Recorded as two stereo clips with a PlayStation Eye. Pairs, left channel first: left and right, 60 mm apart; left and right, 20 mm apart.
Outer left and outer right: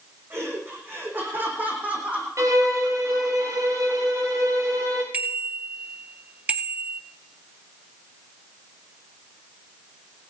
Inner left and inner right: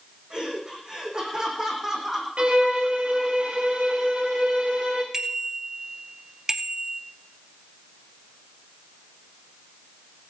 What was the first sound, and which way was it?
Laughter, 45° right (ahead or behind).